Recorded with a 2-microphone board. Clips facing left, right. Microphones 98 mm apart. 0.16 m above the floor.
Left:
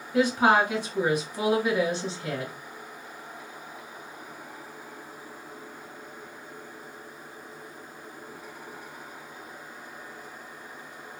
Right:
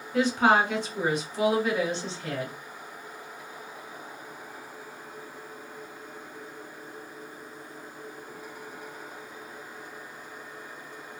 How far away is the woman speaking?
About 1.9 m.